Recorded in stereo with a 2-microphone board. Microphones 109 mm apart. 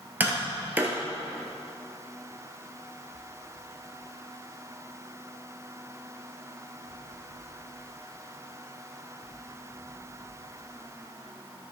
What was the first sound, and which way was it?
Tapping, 15° right (ahead or behind).